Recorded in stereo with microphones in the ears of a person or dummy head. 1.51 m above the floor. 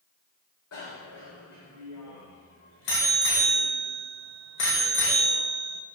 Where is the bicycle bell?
75° left (ahead or behind), 4.5 m.